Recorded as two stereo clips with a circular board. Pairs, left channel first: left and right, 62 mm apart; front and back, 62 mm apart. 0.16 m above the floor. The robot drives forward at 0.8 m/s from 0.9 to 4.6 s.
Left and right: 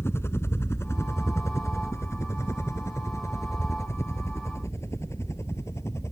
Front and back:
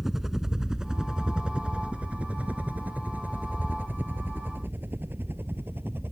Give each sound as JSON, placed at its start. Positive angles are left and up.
{"t": 0.0, "sound": "a helicopter", "azimuth_deg": 95}